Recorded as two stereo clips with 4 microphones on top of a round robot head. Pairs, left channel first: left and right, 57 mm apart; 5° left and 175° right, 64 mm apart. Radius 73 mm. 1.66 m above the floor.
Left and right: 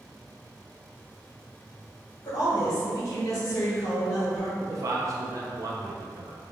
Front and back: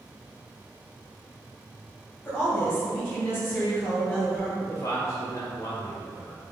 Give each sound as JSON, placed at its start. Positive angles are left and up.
{"t": 2.2, "sound": "a woman speaking", "azimuth_deg": 65, "distance_m": 1.3}
{"t": 4.6, "sound": "a man speaking", "azimuth_deg": -55, "distance_m": 0.6}